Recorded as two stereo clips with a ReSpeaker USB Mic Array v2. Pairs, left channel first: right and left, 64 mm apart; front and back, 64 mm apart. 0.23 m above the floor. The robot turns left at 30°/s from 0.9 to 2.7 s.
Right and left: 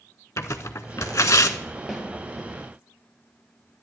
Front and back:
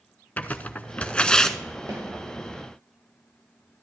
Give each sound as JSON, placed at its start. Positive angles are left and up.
{"t": 0.4, "sound": "tearing paper", "azimuth_deg": -65, "distance_m": 0.5}
{"t": 1.9, "sound": "a snare drum", "azimuth_deg": 180, "distance_m": 2.5}